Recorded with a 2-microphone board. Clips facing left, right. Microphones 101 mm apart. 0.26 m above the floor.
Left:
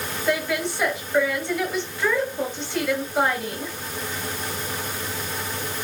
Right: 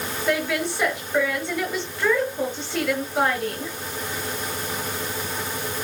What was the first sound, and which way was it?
A woman speaking, centre (ahead or behind).